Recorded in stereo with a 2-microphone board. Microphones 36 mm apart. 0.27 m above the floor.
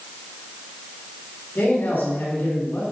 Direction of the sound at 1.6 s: 65° left (ahead or behind).